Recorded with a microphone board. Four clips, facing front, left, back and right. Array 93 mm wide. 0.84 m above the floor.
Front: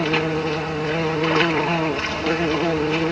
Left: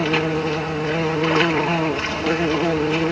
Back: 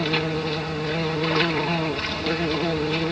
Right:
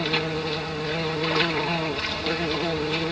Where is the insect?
50° left.